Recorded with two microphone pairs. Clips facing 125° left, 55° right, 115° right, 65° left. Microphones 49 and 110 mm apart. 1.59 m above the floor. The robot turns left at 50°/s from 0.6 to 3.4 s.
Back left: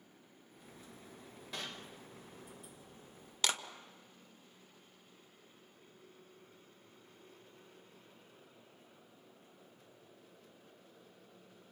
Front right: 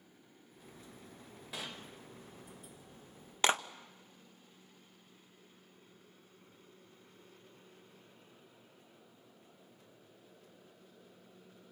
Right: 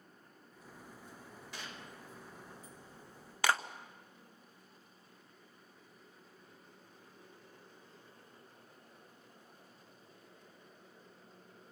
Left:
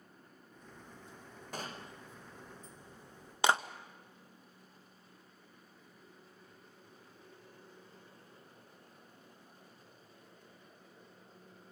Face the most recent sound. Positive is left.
turn(degrees=-5)